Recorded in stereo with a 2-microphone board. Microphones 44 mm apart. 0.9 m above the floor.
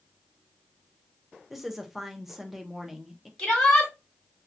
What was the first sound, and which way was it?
A woman speaking, 5° right (ahead or behind).